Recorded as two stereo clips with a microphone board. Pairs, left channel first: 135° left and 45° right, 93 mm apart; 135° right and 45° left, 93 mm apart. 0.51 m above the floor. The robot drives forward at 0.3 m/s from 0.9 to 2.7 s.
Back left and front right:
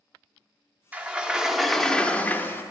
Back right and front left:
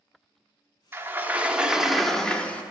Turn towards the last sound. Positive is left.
turn(degrees=170)